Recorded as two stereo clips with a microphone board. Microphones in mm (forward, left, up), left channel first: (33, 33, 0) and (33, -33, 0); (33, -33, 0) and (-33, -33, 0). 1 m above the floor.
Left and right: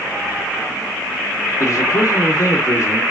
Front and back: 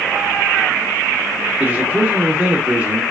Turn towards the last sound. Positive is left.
turn(degrees=120)